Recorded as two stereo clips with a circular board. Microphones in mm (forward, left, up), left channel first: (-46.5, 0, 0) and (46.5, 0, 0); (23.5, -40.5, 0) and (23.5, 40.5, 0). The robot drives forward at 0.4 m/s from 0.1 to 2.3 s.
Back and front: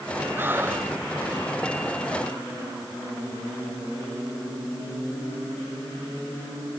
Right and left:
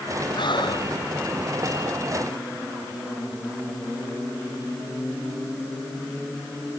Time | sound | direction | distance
0.4 | breathing | 65° right | ?